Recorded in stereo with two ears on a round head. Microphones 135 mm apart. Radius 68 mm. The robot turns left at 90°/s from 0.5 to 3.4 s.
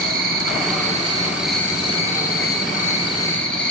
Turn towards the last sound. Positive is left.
turn(degrees=10)